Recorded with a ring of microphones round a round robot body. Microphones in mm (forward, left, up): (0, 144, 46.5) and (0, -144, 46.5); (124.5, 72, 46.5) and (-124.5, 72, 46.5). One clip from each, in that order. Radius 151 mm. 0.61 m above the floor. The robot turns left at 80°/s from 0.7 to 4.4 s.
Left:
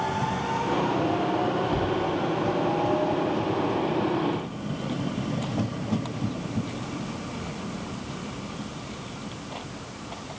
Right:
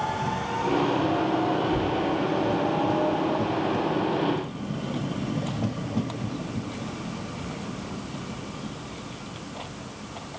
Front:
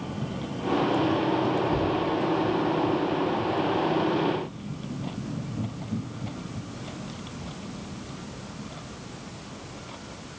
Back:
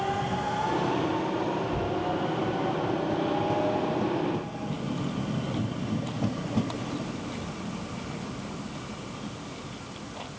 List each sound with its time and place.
1.7 s knocking: 35° left, 8 m; by 2.1 s straight ahead, 8 m